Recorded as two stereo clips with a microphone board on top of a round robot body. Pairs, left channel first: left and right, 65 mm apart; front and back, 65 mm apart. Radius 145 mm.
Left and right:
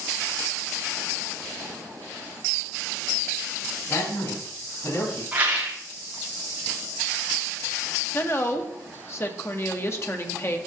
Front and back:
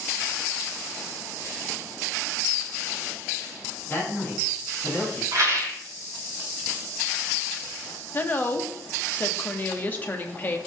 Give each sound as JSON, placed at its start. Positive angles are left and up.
{"t": 3.9, "sound": "a man speaking", "azimuth_deg": 65, "distance_m": 6.0}
{"t": 5.3, "sound": "a rattle", "azimuth_deg": -155, "distance_m": 3.5}
{"t": 8.1, "sound": "a woman speaking", "azimuth_deg": 55, "distance_m": 1.4}